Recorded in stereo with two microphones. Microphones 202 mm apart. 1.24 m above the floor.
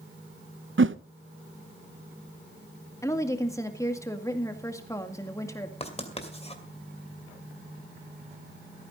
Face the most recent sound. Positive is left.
turn(degrees=30)  # may be behind; listen again after turning